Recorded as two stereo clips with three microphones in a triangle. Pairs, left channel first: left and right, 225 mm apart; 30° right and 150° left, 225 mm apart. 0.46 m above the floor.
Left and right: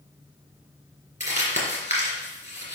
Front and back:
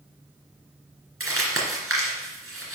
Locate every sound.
1.2 s crumpling: 145° left, 2.5 m